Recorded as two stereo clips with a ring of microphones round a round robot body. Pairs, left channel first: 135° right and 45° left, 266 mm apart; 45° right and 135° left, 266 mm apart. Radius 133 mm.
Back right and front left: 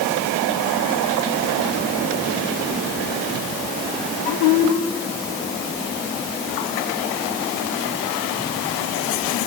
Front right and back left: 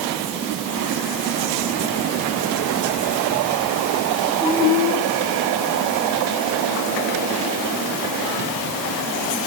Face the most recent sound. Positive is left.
No sound to turn to.